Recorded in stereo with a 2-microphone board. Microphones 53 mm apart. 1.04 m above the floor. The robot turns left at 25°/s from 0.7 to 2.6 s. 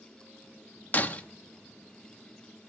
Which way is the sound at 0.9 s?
35° left (ahead or behind).